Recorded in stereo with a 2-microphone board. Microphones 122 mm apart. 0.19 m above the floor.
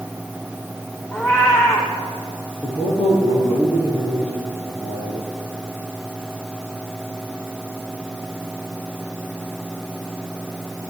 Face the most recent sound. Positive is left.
turn(degrees=60)  # may be behind; listen again after turning